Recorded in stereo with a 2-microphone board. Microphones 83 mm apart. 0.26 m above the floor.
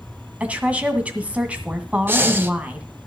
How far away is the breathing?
About 1.0 m.